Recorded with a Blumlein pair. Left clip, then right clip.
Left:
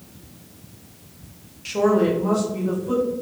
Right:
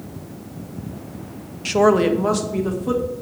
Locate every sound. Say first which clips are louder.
1.6 s a woman speaking: right 4 dB; 20° right, 0.6 m; by 3.0 s 40° right, 2 m